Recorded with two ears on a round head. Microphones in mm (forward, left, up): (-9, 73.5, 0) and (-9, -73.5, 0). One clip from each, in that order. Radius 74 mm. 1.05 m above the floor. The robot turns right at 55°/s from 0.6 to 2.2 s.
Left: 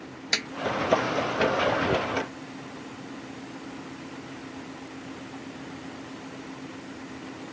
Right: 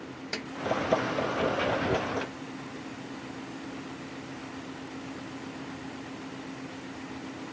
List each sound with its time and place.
0.3 s a snare drum: 70° left (ahead or behind)